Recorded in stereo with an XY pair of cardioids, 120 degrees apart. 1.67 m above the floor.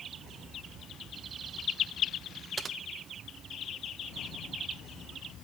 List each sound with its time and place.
2.6 s typing on a keyboard: 30° right, 0.9 m